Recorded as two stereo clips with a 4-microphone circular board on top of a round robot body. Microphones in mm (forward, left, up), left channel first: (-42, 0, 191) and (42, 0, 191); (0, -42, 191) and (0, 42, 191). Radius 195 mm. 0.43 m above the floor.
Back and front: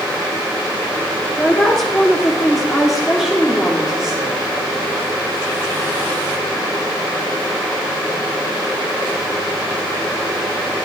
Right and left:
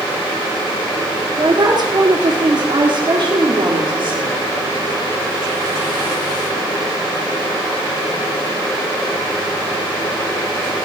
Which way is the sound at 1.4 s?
100° left.